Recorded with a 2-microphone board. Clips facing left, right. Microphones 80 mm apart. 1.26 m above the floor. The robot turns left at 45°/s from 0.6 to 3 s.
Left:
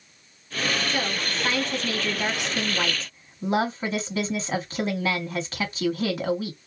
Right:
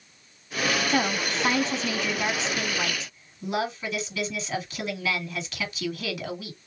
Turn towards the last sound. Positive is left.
turn(degrees=140)